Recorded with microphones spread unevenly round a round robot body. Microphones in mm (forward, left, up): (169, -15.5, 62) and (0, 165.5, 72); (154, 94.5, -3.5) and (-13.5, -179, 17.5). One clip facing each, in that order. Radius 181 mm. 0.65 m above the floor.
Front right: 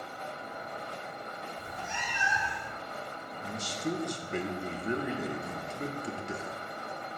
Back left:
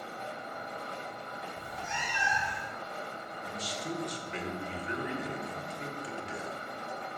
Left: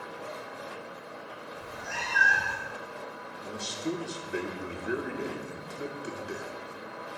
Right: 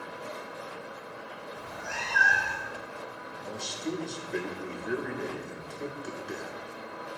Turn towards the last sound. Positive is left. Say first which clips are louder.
# front right 5 dB, left 1 dB
turn(degrees=-20)